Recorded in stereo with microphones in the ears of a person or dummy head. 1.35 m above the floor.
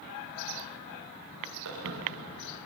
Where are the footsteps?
75° right (ahead or behind), 7 m.